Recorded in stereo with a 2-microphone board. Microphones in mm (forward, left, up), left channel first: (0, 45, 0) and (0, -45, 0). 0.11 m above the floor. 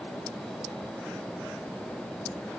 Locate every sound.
Only background noise.